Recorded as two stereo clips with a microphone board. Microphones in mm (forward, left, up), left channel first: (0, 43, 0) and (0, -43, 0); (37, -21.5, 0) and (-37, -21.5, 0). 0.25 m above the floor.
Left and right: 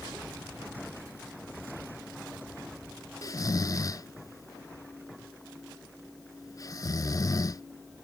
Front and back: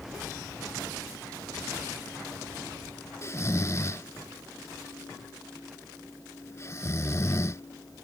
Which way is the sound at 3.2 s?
50° left.